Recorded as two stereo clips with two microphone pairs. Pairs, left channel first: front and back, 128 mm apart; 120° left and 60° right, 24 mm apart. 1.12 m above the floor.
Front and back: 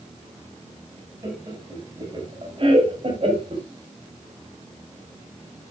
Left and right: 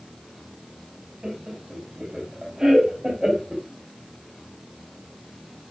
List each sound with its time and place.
1.2 s laughter: 120° right, 5.5 m; by 3.6 s 140° right, 4.5 m